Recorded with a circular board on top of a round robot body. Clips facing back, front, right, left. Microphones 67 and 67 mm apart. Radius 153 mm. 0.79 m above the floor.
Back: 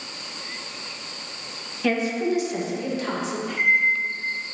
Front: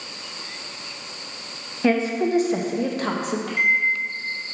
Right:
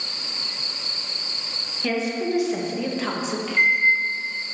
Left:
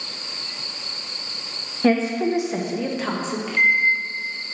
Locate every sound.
1.8 s a woman speaking: 50° left, 1.4 m; by 3.4 s 10° right, 1.6 m
3.5 s a microwave: 5° left, 2.5 m